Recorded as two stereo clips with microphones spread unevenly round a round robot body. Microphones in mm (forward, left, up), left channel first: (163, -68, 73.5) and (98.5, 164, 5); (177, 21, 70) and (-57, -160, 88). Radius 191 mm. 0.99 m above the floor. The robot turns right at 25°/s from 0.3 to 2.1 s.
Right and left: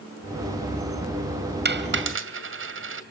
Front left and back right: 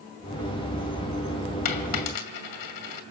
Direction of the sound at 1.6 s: 55° left.